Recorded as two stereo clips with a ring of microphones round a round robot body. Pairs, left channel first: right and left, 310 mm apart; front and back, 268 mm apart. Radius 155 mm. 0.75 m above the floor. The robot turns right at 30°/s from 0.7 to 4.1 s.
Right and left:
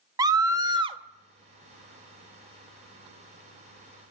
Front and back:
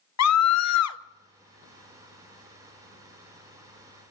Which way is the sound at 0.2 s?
10° left.